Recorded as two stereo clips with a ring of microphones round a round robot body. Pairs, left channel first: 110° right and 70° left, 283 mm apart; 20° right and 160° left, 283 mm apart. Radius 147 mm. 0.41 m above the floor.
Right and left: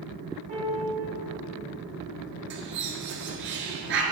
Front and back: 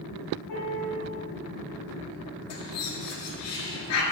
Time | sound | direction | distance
0.5 | a piano | straight ahead | 2 m
2.5 | a bird | 15° left | 1.2 m